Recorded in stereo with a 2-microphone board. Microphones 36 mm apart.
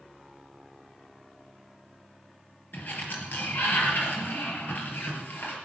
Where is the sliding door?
60° left (ahead or behind), 3 m.